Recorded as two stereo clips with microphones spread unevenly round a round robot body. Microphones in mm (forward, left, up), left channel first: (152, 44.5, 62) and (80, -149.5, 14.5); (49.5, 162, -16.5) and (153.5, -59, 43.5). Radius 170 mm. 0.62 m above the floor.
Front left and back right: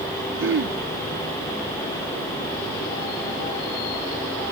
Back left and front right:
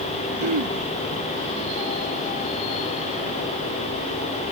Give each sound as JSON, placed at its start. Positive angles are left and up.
{"t": 0.4, "sound": "throat clearing", "azimuth_deg": -90}